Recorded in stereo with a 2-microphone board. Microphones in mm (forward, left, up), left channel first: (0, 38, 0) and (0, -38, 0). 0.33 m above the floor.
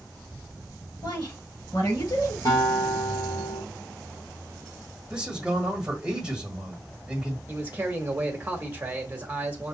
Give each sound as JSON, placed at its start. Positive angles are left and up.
{"t": 1.0, "sound": "a woman speaking", "side_deg": 55, "distance_m": 4.5}
{"t": 2.5, "sound": "a guitar", "side_deg": 50, "distance_m": 4.5}
{"t": 5.1, "sound": "a man speaking", "side_deg": -5, "distance_m": 1.7}
{"t": 7.5, "sound": "a man speaking", "side_deg": -25, "distance_m": 1.4}